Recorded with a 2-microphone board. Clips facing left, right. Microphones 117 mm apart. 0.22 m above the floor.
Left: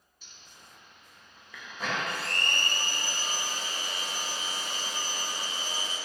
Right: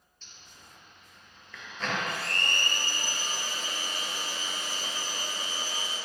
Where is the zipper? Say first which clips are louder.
Even; 10° left (ahead or behind), 1.0 m.